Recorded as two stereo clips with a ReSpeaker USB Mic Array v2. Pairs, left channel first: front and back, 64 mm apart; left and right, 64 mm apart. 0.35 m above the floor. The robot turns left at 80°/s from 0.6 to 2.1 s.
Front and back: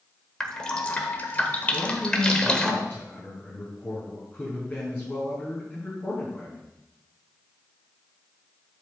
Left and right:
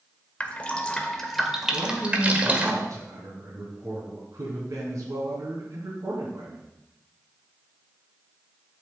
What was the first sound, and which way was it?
Dripping, 60° left.